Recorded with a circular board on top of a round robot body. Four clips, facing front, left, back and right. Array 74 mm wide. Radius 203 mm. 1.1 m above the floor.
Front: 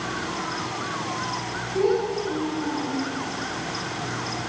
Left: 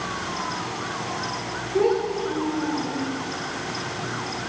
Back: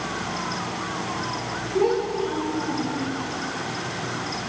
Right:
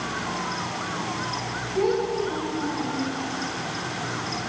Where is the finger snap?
No finger snap in this recording.